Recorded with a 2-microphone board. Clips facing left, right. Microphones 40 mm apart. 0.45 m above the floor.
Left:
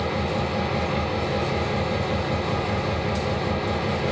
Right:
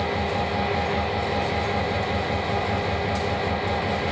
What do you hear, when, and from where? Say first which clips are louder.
0.0 s an engine running: right 1 dB; 15° right (ahead or behind), 5 m